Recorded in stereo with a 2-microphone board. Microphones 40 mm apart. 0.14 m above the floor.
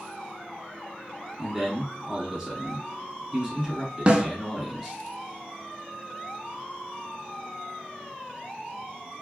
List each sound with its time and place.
1.4 s a man speaking: 5° right (ahead or behind), 1.7 m
4.1 s a snare drum: 30° right (ahead or behind), 0.5 m